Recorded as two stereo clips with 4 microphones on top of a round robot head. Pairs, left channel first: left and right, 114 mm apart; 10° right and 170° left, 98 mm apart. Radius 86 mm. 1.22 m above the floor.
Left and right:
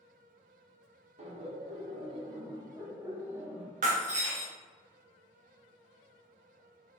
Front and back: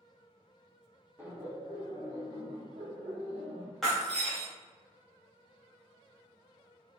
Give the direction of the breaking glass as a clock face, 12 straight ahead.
3 o'clock.